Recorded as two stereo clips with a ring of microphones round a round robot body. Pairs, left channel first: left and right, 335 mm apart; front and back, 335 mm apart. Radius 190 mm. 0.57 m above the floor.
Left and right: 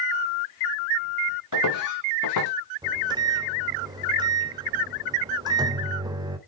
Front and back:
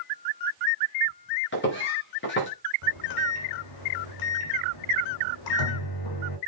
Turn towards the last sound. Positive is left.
turn(degrees=-15)